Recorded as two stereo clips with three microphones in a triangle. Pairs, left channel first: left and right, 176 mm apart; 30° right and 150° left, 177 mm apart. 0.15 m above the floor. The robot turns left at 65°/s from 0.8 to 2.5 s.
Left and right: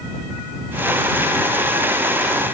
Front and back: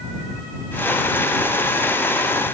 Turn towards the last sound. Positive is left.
No sound to turn to.